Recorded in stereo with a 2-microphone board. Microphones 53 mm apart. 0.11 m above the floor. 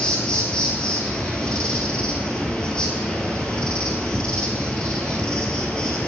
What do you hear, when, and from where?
0.0 s an insect: 20° left (ahead or behind), 1.2 m